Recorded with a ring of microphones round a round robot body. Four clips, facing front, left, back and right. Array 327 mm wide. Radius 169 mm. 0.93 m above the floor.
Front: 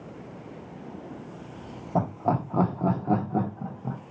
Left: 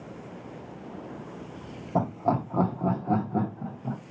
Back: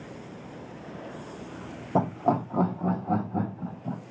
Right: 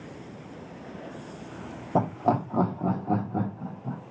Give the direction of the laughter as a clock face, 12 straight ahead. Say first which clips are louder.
Right 2 dB, back 1 dB; 5 o'clock.